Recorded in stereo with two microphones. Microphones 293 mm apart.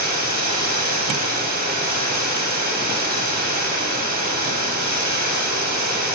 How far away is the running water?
About 1.4 m.